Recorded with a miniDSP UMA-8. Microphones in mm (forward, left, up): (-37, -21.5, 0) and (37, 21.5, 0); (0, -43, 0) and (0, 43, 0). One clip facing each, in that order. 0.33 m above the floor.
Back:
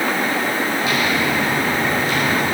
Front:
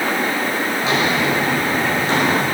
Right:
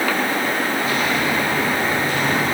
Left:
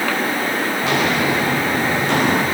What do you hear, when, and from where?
0.8 s footsteps: 90° left, 4.5 m; by 2.4 s 85° left, 5.5 m